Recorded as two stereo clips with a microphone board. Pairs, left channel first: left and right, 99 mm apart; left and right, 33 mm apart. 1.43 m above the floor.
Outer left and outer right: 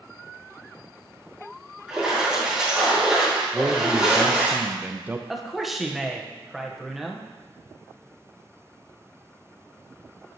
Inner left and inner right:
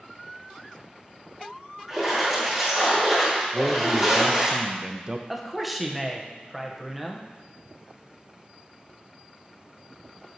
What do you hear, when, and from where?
1.9 s a splash: 10° right (ahead or behind), 2.5 m
3.5 s a man speaking: 20° right (ahead or behind), 0.5 m
5.3 s a man speaking: centre (ahead or behind), 0.7 m